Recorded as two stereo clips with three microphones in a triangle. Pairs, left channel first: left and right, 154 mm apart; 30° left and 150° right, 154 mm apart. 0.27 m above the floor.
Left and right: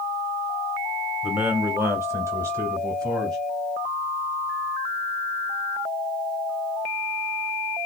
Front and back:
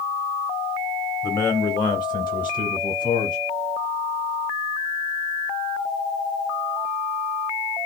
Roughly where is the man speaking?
Ahead.